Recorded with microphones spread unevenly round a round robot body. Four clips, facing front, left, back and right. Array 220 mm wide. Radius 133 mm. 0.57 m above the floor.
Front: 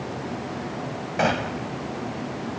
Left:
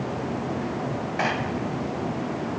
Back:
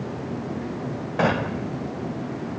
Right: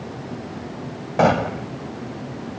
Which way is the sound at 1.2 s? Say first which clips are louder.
Right 10 dB, back 1 dB; 115° right.